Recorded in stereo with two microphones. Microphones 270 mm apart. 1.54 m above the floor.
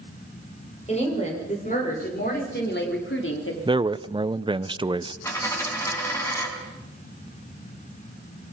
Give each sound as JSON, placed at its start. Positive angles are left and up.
{"t": 0.9, "sound": "a woman speaking", "side_deg": 25, "distance_m": 7.0}
{"t": 3.6, "sound": "a man speaking", "side_deg": -20, "distance_m": 0.6}
{"t": 5.2, "sound": "a dropped coin", "side_deg": 10, "distance_m": 5.5}